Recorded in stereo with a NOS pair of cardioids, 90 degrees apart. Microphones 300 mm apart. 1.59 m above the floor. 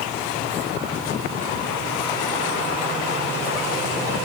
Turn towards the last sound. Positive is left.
No sound to turn to.